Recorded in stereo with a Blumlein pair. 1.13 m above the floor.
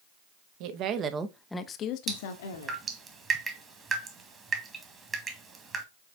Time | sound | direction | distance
0.6 | a woman speaking | 45° right | 1.4 m
2.1 | dripping | 20° right | 2.0 m